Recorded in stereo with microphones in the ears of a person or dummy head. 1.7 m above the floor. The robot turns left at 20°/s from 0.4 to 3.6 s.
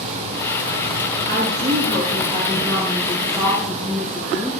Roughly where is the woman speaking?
Behind right.